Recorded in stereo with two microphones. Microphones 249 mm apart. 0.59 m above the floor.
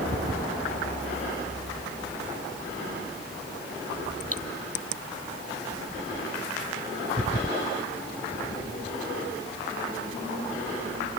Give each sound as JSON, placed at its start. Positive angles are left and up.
{"t": 4.3, "sound": "cutlery clinking", "side_deg": -65}